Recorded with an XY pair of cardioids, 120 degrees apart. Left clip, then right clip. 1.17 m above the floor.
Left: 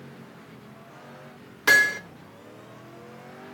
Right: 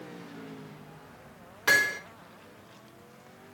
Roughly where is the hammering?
Ahead left.